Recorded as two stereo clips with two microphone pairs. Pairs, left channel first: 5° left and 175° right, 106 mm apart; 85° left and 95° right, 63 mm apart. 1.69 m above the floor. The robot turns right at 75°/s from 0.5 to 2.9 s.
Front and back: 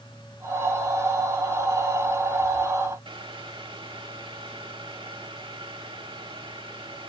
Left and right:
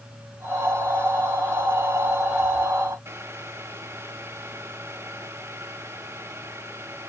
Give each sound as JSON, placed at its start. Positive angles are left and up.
{"t": 3.0, "sound": "boiling", "azimuth_deg": -140, "distance_m": 2.5}